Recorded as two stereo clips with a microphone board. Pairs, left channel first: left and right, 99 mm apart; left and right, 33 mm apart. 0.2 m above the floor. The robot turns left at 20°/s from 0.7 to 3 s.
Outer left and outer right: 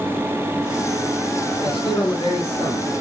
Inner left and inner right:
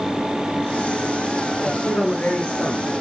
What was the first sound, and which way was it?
A man speaking, 65° left (ahead or behind).